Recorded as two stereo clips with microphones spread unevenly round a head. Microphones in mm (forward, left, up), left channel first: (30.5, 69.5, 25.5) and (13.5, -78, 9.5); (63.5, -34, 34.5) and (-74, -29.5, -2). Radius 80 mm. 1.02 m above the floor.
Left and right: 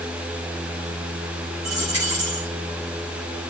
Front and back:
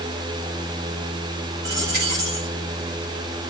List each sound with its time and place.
1.6 s a dropped coin: 170° right, 6 m